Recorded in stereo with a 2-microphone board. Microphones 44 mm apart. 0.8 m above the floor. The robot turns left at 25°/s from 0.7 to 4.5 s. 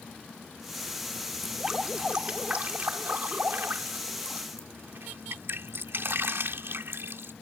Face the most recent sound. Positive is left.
turn(degrees=-85)